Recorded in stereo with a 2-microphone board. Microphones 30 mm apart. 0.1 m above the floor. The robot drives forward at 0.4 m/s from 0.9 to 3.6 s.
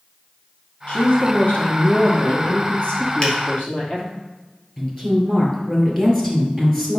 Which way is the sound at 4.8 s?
15° left (ahead or behind).